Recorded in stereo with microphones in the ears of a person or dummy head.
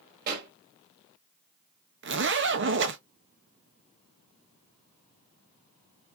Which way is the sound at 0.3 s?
50° right (ahead or behind).